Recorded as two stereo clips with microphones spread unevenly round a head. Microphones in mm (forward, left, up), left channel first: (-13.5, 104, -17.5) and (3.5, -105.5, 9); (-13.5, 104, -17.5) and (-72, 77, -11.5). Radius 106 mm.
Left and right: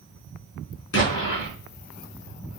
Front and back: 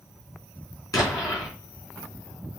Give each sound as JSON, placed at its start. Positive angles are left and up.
{"t": 0.9, "sound": "an explosion", "azimuth_deg": 55, "distance_m": 4.0}